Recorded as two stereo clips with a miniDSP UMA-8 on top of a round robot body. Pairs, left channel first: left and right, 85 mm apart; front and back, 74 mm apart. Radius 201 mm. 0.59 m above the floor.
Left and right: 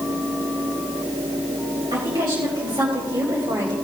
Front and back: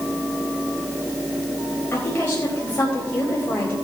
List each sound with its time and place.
1.9 s a woman speaking: 60° right, 4 m